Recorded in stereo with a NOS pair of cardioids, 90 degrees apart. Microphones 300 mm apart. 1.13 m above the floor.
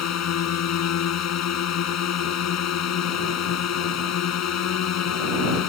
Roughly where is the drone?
Ahead left.